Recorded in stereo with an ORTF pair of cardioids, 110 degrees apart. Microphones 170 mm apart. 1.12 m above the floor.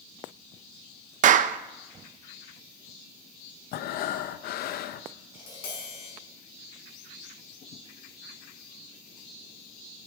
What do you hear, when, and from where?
1.2 s a clap: 50° right, 0.6 m
3.7 s breathing: 65° left, 0.6 m
5.3 s tapping: 65° left, 6.5 m